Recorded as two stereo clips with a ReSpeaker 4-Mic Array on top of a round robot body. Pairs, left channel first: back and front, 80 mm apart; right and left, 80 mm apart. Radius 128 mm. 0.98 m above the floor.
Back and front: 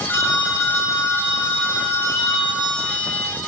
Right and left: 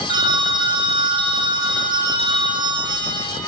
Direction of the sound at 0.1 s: 120° left.